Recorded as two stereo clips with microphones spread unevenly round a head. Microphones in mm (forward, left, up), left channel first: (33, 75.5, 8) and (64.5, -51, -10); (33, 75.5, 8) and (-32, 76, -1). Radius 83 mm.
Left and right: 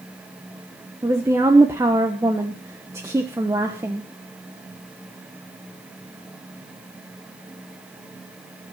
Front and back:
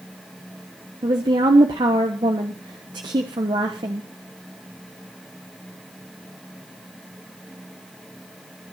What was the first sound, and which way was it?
A woman speaking, 150° right.